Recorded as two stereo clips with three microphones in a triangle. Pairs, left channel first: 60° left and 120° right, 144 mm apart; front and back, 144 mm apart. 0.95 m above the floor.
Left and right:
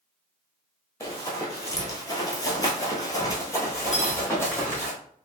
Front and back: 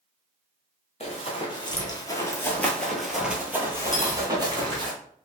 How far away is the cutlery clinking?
About 0.9 m.